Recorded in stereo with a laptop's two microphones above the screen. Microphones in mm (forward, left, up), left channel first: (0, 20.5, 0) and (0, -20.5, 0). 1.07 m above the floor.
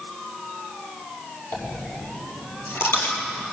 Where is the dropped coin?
70° left (ahead or behind), 4 m.